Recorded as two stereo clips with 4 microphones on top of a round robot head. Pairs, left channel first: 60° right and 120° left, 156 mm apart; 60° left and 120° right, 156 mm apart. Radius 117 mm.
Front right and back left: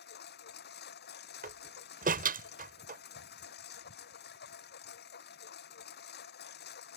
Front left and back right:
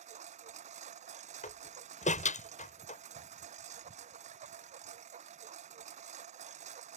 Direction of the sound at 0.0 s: 75° right.